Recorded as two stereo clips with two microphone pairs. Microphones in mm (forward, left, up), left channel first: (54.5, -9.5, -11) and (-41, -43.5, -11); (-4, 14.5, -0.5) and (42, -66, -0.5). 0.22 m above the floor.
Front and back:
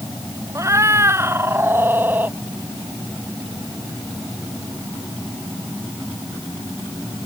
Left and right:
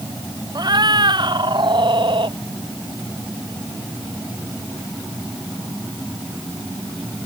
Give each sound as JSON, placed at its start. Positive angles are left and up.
{"t": 0.6, "sound": "a cat meowing", "azimuth_deg": -100}